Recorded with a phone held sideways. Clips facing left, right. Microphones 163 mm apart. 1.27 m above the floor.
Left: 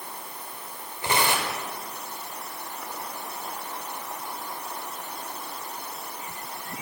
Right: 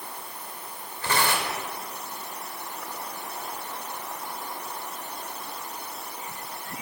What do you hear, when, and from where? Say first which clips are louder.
1.0 s tearing paper: left 1 dB; 20° left (ahead or behind), 6 m